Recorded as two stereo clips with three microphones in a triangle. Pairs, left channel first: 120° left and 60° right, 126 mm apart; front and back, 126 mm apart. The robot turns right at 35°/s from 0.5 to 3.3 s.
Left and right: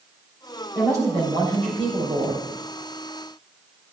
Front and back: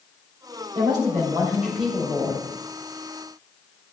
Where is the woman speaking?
130° right, 4 m; by 2.5 s 70° right, 4 m.